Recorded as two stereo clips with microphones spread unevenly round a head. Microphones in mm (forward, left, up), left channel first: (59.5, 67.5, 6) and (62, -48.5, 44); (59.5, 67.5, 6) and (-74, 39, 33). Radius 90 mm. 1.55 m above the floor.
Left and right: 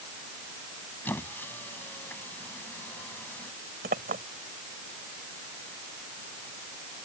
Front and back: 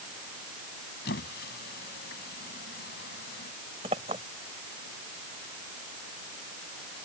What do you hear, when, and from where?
1.1 s a squeak: 10° left
3.8 s a clink: 110° right